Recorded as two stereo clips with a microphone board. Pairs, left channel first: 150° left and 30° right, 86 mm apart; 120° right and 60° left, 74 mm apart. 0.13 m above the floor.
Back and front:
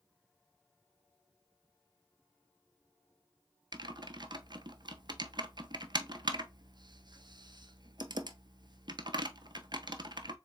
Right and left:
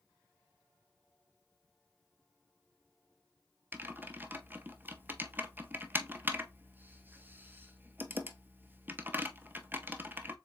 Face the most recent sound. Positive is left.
turn(degrees=0)